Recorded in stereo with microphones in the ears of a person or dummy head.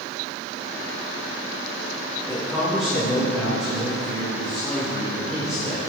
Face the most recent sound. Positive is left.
turn(degrees=0)  # may be behind; listen again after turning